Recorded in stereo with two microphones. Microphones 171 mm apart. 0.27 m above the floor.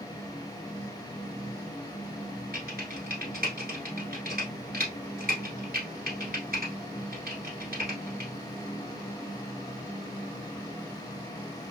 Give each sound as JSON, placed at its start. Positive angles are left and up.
{"t": 2.5, "sound": "typing on a keyboard", "side_deg": -65, "distance_m": 1.2}